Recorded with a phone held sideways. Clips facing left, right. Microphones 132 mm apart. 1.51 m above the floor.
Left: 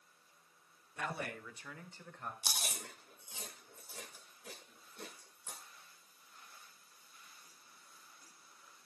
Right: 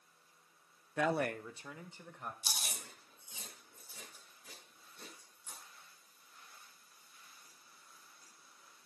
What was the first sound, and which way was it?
A man speaking, 80° right.